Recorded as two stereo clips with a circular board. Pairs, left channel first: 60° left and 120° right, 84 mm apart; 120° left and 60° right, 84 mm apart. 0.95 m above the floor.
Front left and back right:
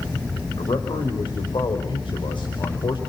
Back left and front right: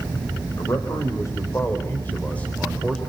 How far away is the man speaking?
About 4.5 m.